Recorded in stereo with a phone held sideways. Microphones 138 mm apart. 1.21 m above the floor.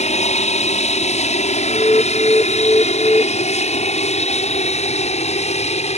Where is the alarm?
20° left (ahead or behind).